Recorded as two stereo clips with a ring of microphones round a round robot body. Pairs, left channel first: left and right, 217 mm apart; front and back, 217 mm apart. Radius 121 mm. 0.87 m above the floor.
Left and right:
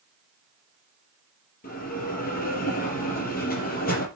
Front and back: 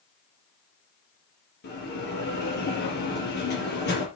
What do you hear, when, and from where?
1.6 s a bell: 40° left, 4 m